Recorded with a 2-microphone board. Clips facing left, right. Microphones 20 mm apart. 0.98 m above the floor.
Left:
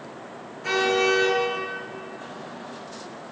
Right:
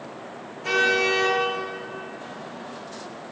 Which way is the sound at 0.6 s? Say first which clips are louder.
Right 1 dB; 15° left (ahead or behind).